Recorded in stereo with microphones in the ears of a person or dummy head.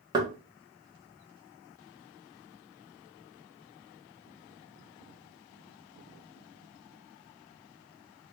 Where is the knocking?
25° right (ahead or behind), 0.9 m.